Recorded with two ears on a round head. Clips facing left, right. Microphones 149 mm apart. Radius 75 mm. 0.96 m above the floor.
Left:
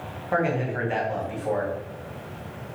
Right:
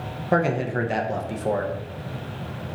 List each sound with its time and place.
0.3 s a man speaking: 45° right (ahead or behind), 0.5 m